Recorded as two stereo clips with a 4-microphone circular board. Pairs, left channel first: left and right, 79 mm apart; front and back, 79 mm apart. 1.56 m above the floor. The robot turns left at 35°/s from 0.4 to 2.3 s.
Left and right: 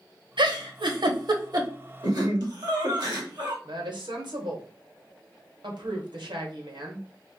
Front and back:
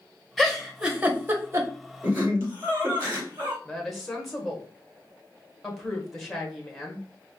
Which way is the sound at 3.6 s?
85° right.